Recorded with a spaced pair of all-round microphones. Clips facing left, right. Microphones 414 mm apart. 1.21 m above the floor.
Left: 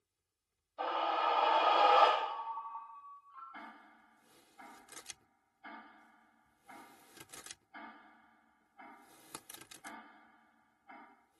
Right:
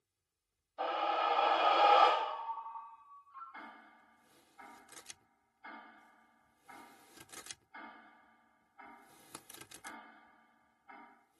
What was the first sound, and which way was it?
A scream, centre (ahead or behind).